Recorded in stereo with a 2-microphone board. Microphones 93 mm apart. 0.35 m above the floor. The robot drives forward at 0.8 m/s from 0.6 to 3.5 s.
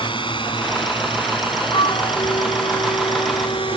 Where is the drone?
65° left (ahead or behind); by 3.8 s 70° left (ahead or behind).